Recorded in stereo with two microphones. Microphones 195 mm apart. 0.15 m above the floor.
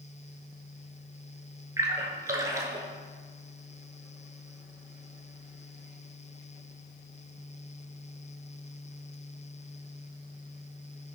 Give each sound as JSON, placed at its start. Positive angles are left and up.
{"t": 1.8, "sound": "a splash", "side_deg": -15, "distance_m": 0.6}